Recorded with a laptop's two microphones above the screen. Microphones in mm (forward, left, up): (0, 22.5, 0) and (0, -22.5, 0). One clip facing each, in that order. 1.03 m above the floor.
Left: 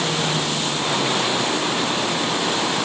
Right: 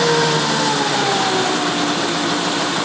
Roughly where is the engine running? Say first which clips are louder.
Right 7 dB; right.